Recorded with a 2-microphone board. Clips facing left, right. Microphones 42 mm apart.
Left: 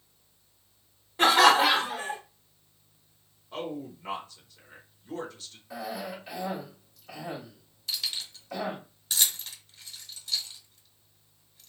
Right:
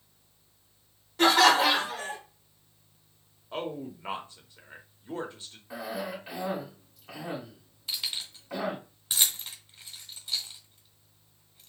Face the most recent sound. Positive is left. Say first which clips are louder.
# left 1 dB
turn(degrees=-15)  # may be behind; listen again after turning